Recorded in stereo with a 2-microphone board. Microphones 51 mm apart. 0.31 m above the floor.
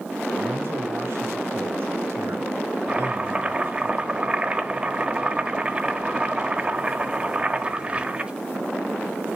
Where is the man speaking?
50° right (ahead or behind), 3.5 m.